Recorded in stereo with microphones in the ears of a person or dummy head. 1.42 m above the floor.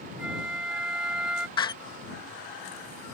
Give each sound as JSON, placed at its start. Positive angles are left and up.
{"t": 0.2, "sound": "a flute", "side_deg": 0}
{"t": 1.6, "sound": "a door slam", "side_deg": 20}